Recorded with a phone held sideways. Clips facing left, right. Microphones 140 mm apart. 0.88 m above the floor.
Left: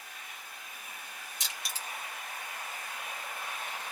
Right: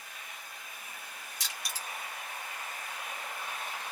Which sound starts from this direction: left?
Crushing, at 1.4 s.